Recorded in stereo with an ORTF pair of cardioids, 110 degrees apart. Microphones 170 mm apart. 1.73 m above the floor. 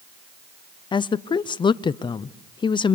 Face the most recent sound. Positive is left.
turn(degrees=30)